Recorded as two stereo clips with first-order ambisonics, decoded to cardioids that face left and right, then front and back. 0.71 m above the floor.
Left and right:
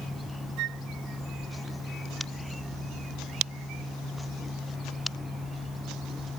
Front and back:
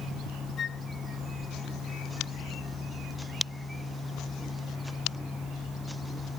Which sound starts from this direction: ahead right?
A flute, at 0.6 s.